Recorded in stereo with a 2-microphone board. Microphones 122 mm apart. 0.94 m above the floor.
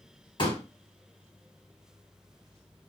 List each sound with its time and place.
0.4 s a pop: 40° left (ahead or behind), 1.5 m